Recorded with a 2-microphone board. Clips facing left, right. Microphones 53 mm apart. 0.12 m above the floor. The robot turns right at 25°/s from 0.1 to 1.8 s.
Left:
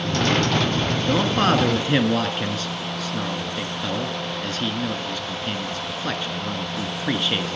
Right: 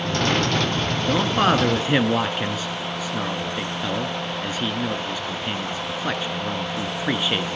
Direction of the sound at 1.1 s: 5° right (ahead or behind).